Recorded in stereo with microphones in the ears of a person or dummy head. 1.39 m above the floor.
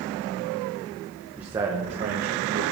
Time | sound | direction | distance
1.4 | a man speaking | 5° right (ahead or behind) | 1.1 m